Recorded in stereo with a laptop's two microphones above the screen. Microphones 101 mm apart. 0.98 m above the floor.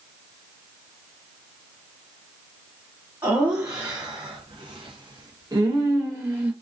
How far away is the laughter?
About 1.0 m.